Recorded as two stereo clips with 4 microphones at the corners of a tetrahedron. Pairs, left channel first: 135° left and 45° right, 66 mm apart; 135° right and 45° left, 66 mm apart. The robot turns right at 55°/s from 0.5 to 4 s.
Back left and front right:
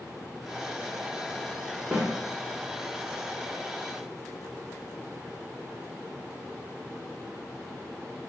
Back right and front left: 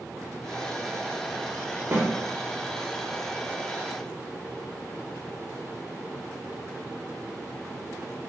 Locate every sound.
1.9 s a snare drum: 25° left, 0.8 m; by 2.1 s 35° left, 0.8 m